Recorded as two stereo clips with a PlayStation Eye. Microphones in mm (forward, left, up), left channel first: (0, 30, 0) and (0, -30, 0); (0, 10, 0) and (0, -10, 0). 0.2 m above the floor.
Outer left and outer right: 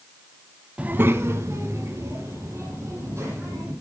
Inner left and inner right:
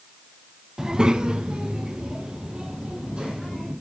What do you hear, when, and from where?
0.8 s a child speaking: 25° right (ahead or behind), 0.6 m; by 3.7 s 55° right (ahead or behind), 5 m